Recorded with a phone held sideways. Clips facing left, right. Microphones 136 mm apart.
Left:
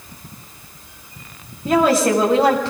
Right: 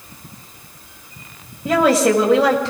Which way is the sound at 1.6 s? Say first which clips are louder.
Right 1 dB; 80° right.